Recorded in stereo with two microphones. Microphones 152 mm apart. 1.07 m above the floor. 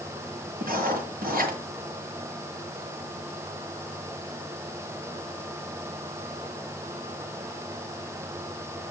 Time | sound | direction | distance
0.6 | writing | 70° right (ahead or behind) | 6 m